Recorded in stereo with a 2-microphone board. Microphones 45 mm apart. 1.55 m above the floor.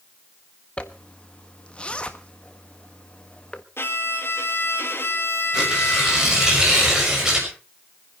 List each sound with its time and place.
0.8 s a zipper: 25° left (ahead or behind), 1.4 m
3.8 s a violin: 65° left (ahead or behind), 2.5 m
5.5 s tearing paper: 15° right (ahead or behind), 6 m